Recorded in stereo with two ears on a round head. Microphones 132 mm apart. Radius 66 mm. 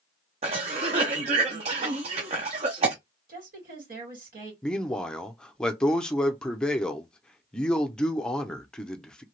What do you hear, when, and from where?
0.4 s a cough: 45° right (ahead or behind), 0.5 m
3.3 s a woman speaking: 65° right (ahead or behind), 2 m
4.6 s a man speaking: 5° left (ahead or behind), 0.6 m